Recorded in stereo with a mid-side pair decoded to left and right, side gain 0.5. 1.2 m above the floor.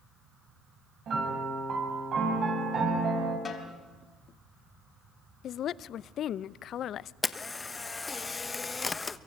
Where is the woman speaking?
60° left, 0.6 m.